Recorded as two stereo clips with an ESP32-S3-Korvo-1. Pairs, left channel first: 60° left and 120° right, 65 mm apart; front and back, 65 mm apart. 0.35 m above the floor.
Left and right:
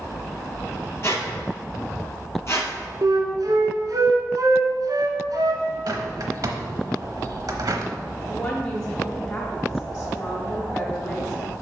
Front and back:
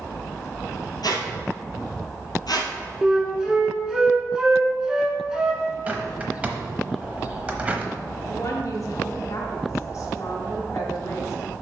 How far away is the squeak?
About 1.6 m.